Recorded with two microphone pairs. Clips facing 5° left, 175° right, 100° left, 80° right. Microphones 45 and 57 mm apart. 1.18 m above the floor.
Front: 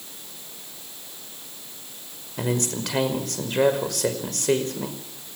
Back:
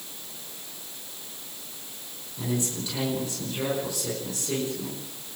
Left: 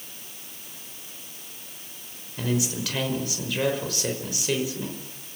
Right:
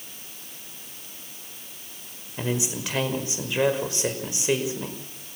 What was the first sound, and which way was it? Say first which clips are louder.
A man speaking: front 4 dB, left 1 dB; 15° right.